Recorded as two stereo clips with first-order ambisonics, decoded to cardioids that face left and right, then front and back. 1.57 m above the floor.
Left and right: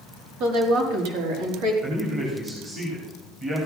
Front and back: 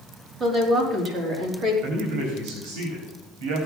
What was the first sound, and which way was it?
A woman speaking, 105° right.